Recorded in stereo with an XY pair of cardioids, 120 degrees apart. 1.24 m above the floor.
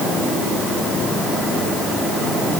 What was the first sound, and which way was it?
Only background noise.